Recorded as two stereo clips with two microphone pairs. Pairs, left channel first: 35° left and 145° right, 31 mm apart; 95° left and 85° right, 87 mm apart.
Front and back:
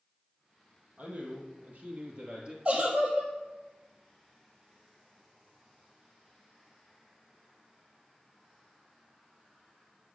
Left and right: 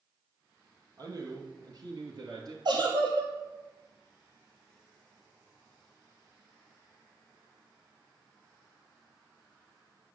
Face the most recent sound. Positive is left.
turn(degrees=-95)